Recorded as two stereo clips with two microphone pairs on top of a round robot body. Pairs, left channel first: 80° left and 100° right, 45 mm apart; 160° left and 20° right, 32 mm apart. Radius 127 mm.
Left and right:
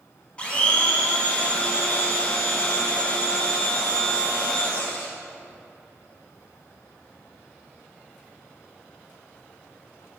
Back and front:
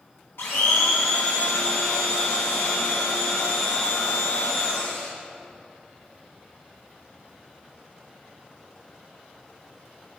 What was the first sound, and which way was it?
A blender, 155° left.